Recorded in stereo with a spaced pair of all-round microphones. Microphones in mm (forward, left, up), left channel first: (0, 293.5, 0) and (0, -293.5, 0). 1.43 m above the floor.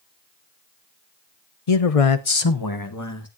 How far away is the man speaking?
About 0.9 m.